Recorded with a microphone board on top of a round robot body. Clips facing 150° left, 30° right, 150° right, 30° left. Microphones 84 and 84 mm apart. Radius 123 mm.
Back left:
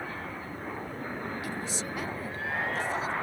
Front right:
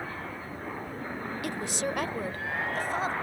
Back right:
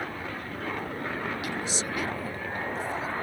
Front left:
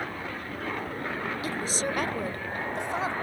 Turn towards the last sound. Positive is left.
turn(degrees=15)